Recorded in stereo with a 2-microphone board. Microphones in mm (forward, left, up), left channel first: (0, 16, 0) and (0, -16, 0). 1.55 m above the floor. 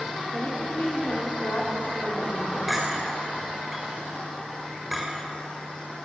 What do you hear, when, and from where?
0.3 s a woman speaking: 55° left (ahead or behind), 4 m
2.7 s a clink: 5° right (ahead or behind), 4 m